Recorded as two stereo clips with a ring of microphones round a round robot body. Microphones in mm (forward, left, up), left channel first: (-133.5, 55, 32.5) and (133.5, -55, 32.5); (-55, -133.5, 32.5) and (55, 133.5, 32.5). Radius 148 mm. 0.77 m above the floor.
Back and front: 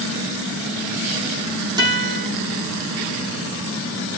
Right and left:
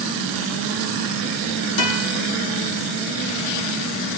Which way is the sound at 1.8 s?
100° right.